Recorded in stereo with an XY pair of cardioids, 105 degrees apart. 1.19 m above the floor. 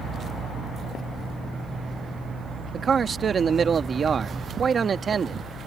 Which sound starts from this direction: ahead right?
A man speaking, at 2.7 s.